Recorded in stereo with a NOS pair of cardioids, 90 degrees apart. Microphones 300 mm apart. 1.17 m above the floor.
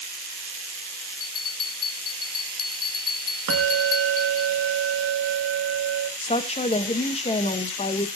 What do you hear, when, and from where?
1.2 s a bell: 50° left, 1.3 m
3.5 s a bell: 50° right, 1.9 m
6.2 s a woman speaking: 20° left, 1.4 m